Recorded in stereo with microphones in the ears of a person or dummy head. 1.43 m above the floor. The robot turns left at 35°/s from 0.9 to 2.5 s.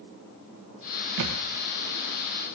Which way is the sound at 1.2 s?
60° right (ahead or behind).